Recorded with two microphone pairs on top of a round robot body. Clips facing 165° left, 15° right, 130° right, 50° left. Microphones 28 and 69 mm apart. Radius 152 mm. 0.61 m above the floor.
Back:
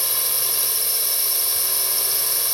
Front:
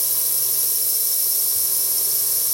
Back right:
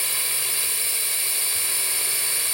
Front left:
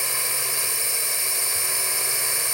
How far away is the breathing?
I don't hear breathing.